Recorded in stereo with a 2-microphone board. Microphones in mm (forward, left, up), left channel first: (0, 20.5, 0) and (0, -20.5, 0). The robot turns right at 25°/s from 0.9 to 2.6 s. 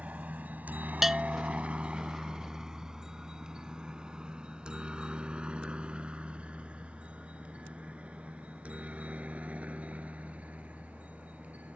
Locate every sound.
0.0 s a helicopter: 40° right (ahead or behind)
1.0 s a bell: centre (ahead or behind); by 1.6 s 15° right (ahead or behind)